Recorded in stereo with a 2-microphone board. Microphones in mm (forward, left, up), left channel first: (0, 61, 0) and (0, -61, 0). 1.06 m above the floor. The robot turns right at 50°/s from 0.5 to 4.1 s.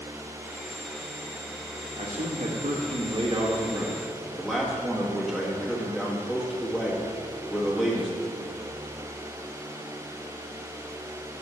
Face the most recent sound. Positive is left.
turn(degrees=0)